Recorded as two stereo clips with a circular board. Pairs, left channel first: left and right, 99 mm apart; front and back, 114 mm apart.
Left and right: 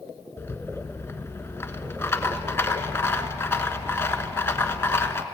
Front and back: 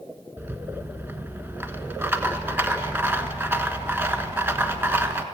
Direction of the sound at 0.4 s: 125° left.